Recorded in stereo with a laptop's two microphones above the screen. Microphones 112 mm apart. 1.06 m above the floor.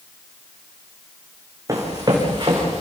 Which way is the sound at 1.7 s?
30° right (ahead or behind).